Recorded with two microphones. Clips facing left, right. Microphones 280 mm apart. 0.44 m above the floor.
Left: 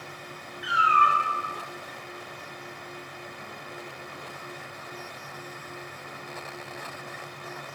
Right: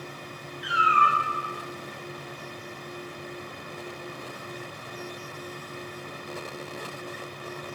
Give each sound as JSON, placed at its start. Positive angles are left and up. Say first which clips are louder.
{"t": 0.6, "sound": "a cat meowing", "louder": "even", "side_deg": -40, "distance_m": 1.2}